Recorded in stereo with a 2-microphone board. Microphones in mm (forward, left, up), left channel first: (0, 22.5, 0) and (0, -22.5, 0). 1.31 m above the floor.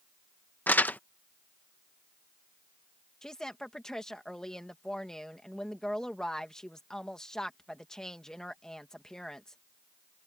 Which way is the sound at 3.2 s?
15° left (ahead or behind).